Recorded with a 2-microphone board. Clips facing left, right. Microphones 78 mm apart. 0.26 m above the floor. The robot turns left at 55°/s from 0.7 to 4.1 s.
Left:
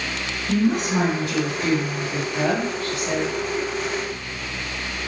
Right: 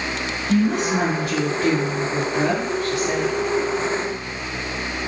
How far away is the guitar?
No guitar in this recording.